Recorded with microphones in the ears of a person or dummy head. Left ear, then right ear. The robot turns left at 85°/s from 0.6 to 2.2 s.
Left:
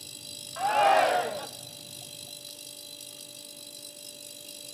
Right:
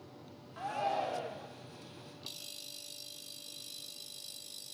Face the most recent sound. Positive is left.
turn(degrees=10)